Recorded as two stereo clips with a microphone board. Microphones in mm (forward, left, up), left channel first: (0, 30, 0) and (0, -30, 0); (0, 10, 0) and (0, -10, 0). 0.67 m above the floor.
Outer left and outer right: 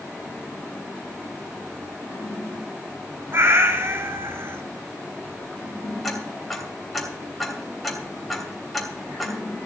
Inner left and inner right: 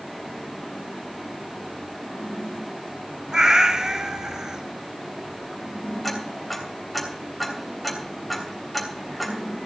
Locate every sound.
3.3 s a cat meowing: 50° right (ahead or behind), 1.1 m
6.0 s ticking: centre (ahead or behind), 3 m